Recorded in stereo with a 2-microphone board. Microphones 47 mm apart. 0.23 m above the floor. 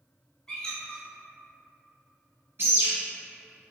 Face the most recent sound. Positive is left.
turn(degrees=-60)  # may be behind; listen again after turning